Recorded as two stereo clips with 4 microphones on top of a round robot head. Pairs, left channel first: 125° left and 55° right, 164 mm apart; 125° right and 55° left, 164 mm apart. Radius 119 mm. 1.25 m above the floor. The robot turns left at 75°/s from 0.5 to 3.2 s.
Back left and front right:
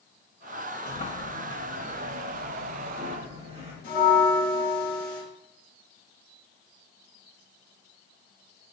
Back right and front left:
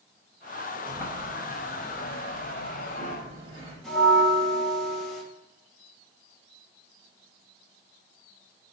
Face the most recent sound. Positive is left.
turn(degrees=145)